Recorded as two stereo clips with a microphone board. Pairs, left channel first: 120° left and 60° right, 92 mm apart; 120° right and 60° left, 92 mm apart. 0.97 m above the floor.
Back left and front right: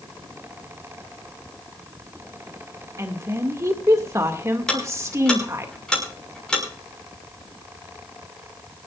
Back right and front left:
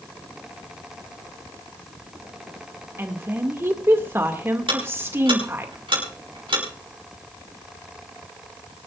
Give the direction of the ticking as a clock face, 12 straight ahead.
11 o'clock.